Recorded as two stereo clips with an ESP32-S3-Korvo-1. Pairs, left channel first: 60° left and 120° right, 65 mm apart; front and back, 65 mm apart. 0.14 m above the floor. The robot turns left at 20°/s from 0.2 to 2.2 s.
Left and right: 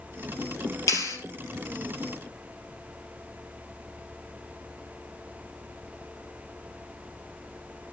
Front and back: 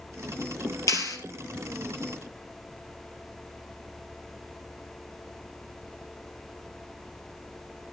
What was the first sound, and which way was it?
A clap, 30° left.